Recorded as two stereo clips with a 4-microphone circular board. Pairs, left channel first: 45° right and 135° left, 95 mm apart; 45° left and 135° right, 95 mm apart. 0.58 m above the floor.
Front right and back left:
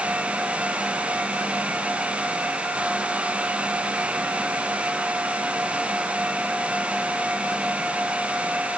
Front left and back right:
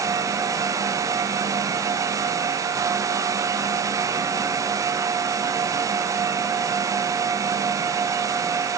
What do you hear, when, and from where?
Only background noise.